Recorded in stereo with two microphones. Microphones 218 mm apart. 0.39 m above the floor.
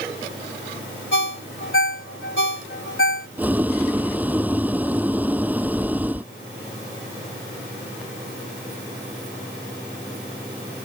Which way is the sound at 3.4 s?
5° right (ahead or behind).